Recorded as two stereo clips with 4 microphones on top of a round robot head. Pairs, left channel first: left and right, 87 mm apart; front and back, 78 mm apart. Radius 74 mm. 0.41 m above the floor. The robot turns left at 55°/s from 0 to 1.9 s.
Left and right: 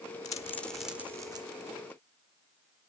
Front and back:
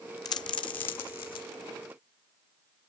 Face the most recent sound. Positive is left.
turn(degrees=-60)